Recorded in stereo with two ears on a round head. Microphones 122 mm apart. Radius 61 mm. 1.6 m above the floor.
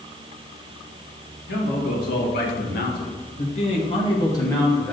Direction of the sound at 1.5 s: 85° left.